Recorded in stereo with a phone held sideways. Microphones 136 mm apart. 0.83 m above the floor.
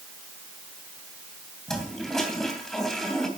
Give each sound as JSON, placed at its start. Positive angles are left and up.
{"t": 1.7, "sound": "a toilet flushing", "side_deg": 5, "distance_m": 3.0}